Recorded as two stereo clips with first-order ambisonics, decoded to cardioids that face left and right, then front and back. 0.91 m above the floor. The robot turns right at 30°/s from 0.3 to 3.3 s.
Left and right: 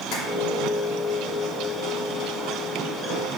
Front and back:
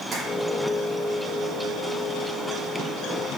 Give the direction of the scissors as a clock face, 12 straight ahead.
I don't hear scissors.